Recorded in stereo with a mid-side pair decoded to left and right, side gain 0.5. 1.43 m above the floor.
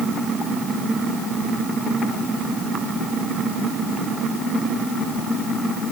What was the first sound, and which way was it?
Only background noise.